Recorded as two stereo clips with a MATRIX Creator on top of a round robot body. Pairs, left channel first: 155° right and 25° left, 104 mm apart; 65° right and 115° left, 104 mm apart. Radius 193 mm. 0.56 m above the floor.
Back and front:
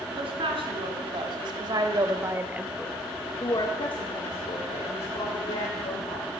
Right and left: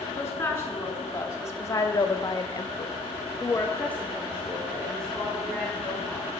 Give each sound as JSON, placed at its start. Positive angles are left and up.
{"t": 0.1, "sound": "a woman speaking", "azimuth_deg": 0, "distance_m": 2.0}